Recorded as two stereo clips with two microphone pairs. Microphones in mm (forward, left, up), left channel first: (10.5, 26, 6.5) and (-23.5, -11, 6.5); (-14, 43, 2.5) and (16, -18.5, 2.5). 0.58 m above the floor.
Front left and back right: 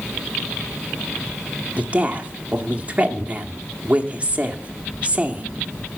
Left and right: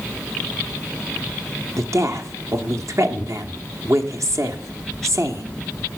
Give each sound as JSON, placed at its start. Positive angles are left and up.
{"t": 1.8, "sound": "a woman speaking", "azimuth_deg": -75, "distance_m": 1.2}